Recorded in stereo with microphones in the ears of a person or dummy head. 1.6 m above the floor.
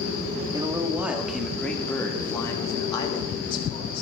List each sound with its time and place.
0.5 s a man speaking: 20° right (ahead or behind), 3 m; by 4.0 s 35° left (ahead or behind), 5 m